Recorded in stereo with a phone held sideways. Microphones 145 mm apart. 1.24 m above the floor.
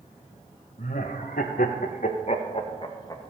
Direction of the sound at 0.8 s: 65° left (ahead or behind).